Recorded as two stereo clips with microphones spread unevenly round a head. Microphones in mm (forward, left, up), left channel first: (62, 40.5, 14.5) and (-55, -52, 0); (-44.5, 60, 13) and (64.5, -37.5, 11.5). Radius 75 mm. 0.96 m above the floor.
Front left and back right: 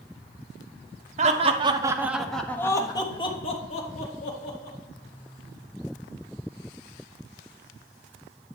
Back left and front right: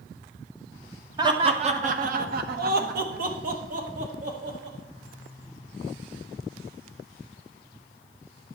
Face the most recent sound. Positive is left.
turn(degrees=0)